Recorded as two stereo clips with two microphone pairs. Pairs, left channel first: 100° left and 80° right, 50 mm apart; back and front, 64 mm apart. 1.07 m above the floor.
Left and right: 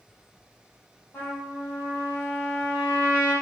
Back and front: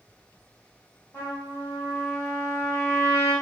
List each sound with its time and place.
1.1 s a trumpet: 140° left, 1.4 m